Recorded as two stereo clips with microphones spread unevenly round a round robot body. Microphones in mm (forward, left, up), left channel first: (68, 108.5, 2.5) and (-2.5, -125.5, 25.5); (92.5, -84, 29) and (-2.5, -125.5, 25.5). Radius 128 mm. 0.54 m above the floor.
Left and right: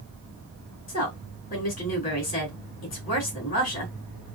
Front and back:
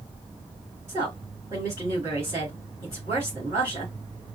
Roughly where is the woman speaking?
Behind left.